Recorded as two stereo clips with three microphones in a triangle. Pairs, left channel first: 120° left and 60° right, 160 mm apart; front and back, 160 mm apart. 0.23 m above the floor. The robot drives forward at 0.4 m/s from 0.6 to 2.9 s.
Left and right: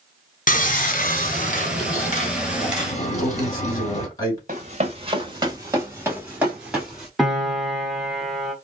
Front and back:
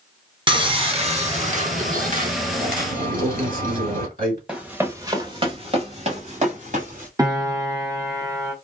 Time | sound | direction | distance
0.5 | sawing | 130° left | 0.8 m
3.1 | a man speaking | straight behind | 2.5 m
4.5 | running footsteps | 95° right | 1.1 m
7.2 | a piano | 145° right | 1.0 m